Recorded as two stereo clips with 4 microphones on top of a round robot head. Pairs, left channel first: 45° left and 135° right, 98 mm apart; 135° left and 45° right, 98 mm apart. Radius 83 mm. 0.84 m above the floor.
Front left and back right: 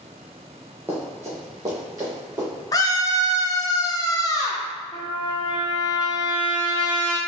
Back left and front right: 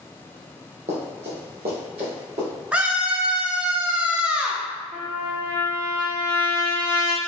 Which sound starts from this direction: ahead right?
Running footsteps, at 0.9 s.